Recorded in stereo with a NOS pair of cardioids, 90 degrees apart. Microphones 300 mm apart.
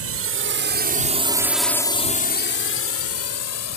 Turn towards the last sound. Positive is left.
turn(degrees=65)